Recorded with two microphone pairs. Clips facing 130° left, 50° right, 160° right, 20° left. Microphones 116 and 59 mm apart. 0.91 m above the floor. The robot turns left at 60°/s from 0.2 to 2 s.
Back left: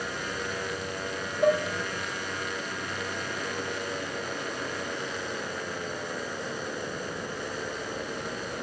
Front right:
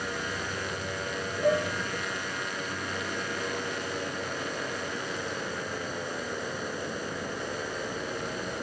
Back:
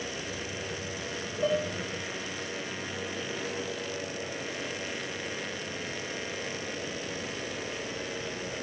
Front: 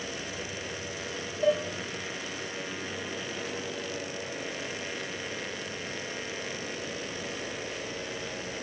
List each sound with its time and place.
1.4 s dishes clattering: 135° left, 2 m; by 1.7 s 120° left, 2 m